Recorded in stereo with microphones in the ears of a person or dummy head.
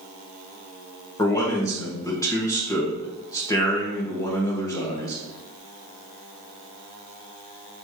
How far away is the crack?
I don't hear a crack.